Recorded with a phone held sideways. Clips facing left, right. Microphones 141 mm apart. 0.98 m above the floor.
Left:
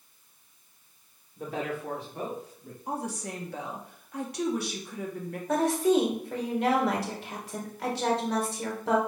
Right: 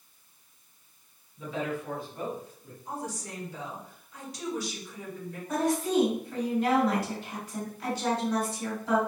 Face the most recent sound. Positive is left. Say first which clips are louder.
# left 3 dB
turn(degrees=80)